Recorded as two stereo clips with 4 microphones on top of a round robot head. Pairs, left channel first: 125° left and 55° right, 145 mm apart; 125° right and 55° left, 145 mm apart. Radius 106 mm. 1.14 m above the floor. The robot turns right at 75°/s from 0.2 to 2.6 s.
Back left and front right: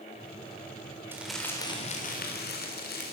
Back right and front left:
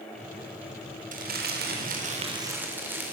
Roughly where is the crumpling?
Ahead.